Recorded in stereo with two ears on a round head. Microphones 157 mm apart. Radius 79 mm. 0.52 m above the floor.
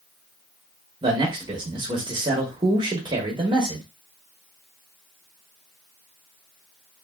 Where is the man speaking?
25° right (ahead or behind), 0.8 m.